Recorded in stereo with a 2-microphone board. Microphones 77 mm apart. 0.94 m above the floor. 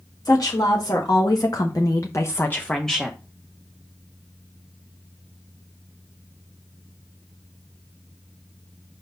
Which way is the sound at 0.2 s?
55° left (ahead or behind).